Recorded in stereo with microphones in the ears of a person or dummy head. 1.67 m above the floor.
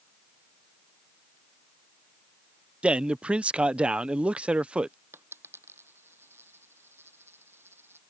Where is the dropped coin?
10° right (ahead or behind).